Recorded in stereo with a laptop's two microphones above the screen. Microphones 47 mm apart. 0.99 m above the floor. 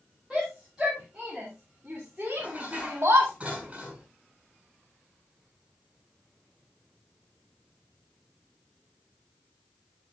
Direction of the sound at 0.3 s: 5° right (ahead or behind).